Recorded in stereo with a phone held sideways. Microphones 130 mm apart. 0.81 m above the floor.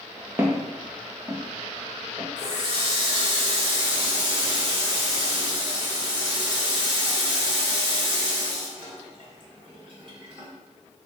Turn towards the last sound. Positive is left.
turn(degrees=-40)  # may be behind; listen again after turning